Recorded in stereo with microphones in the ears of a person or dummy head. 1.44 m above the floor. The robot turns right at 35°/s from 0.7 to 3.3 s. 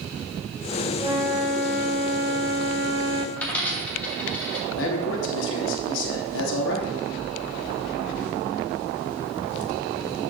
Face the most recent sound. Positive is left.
turn(degrees=80)